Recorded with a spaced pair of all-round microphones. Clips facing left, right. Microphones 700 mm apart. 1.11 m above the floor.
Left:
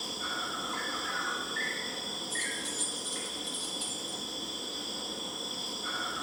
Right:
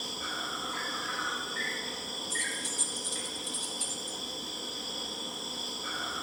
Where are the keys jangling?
70° right (ahead or behind), 0.7 m.